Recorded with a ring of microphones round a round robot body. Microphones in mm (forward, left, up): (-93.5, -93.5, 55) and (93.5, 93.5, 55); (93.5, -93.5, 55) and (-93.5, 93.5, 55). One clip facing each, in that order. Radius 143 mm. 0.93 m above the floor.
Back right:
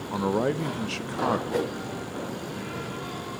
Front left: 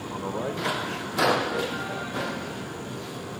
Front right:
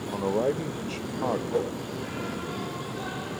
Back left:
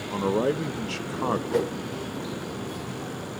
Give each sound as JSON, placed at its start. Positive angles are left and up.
{"t": 0.1, "sound": "a man speaking", "azimuth_deg": -155, "distance_m": 0.7}
{"t": 1.5, "sound": "a whoosh", "azimuth_deg": -170, "distance_m": 1.3}